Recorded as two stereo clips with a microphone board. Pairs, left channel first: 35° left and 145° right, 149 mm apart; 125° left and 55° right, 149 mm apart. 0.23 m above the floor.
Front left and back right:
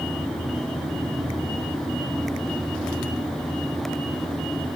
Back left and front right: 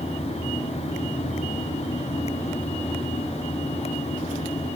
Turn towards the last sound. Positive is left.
No sound to turn to.